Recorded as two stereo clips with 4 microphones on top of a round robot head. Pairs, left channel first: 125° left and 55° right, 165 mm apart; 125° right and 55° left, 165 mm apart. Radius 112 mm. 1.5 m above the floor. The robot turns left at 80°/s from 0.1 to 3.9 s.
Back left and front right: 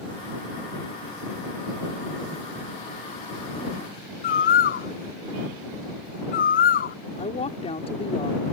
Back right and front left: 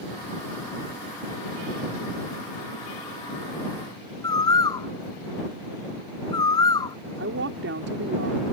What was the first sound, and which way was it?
A bird, 165° left.